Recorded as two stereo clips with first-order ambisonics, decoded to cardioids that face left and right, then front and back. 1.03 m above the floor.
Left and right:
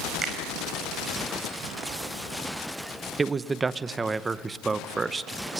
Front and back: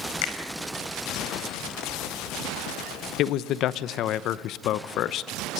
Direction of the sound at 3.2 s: 15° right.